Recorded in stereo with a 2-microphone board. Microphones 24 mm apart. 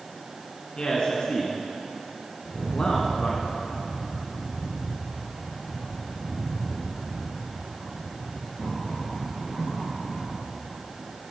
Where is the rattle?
40° left (ahead or behind), 3.5 m.